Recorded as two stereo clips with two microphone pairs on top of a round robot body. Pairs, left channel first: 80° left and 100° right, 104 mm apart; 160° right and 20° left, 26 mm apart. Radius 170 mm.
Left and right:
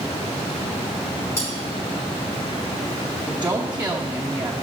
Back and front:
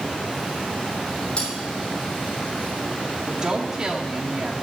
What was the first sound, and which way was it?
Cutlery clinking, 145° left.